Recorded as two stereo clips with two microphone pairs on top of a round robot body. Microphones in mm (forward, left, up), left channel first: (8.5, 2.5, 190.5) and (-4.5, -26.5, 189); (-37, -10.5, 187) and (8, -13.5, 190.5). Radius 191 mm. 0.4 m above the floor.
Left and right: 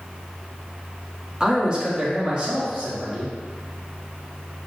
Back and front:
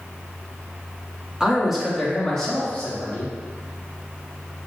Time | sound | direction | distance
1.4 | a man speaking | 70° right | 1.4 m